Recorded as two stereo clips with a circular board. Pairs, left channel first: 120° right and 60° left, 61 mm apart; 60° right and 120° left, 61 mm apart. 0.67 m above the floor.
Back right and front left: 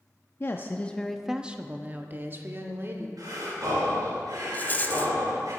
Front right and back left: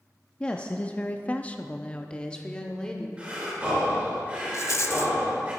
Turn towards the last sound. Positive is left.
turn(degrees=-70)